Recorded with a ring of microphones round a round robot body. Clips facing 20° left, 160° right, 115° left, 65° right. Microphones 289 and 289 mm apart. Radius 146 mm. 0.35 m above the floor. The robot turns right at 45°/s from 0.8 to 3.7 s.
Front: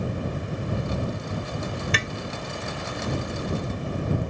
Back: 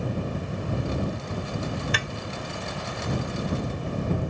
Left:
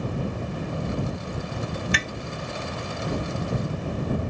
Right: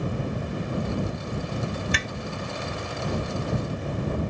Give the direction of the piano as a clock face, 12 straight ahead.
No piano in this recording.